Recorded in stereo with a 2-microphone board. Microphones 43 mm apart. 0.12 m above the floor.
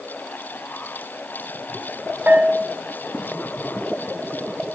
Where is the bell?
45° right (ahead or behind), 0.5 m.